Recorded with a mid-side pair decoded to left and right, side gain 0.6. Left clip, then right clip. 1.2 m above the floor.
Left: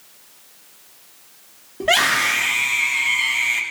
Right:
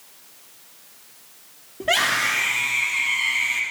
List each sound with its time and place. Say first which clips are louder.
1.8 s a scream: left 3 dB; 20° left, 3 m